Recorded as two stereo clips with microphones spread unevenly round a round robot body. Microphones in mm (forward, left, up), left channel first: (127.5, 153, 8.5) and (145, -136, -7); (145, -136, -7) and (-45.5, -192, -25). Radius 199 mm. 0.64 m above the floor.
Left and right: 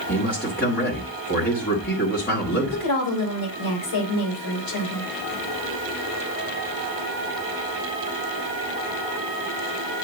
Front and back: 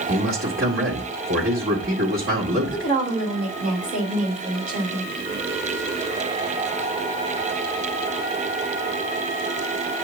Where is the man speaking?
160° left, 1.9 m.